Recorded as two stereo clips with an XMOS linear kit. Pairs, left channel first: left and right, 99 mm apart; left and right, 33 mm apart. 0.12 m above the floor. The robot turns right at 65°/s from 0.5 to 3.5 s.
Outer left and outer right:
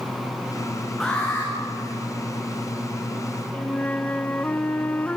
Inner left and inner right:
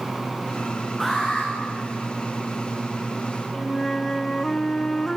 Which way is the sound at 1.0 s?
Straight ahead.